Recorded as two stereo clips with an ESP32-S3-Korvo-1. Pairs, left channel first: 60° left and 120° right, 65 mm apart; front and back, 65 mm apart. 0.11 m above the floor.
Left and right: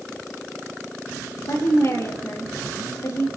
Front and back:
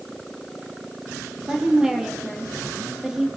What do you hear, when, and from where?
1.5 s a woman speaking: 100° left, 3.5 m